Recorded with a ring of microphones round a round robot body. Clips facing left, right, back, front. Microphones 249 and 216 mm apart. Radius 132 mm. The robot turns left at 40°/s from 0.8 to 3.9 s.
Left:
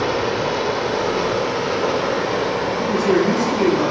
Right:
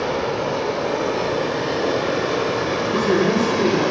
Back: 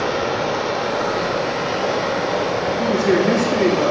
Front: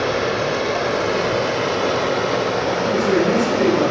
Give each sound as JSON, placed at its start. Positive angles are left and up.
{"t": 0.0, "sound": "running water", "azimuth_deg": 45, "distance_m": 1.3}
{"t": 2.8, "sound": "a man speaking", "azimuth_deg": 110, "distance_m": 4.0}